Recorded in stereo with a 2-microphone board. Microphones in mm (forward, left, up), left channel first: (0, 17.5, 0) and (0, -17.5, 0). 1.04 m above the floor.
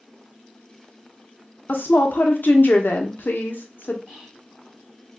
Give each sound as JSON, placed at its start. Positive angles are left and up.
{"t": 1.7, "sound": "a woman speaking", "side_deg": 70, "distance_m": 0.7}
{"t": 4.1, "sound": "whispering", "side_deg": -25, "distance_m": 1.8}